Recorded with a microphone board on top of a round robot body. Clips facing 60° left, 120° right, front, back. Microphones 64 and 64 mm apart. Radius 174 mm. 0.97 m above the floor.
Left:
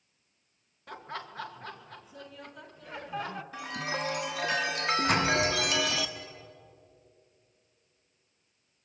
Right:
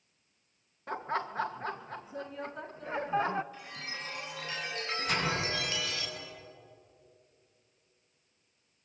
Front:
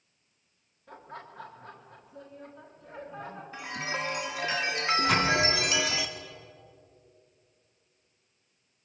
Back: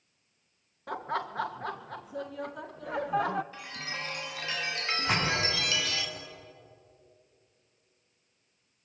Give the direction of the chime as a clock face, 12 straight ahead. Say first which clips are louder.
Left 9 dB, front 5 dB; 10 o'clock.